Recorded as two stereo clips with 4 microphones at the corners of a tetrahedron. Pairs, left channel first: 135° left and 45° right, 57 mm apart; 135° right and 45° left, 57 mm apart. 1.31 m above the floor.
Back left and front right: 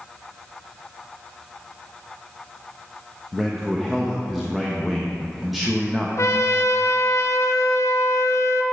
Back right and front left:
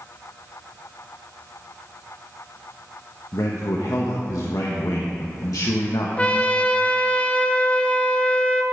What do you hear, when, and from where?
3.3 s a man speaking: 130° right, 1.0 m
6.2 s a trumpet: 155° left, 0.7 m